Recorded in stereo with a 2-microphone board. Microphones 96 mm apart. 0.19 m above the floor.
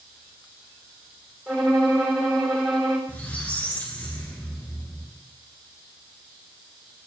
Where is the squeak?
15° left (ahead or behind), 2 m.